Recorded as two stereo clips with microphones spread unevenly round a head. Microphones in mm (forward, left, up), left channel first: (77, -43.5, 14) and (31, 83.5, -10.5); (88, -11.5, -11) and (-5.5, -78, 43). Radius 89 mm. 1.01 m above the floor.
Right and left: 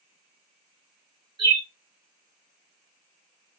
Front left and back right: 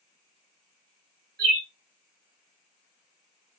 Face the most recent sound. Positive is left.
turn(degrees=170)